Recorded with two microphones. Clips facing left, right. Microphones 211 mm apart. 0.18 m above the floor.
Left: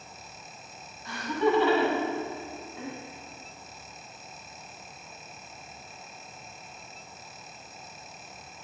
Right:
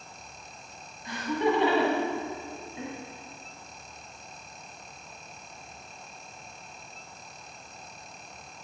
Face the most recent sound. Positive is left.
turn(degrees=-20)  # may be behind; listen again after turning